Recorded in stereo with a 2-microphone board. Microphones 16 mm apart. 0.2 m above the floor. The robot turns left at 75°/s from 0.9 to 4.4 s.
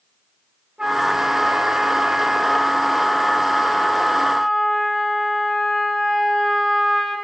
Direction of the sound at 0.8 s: 75° right.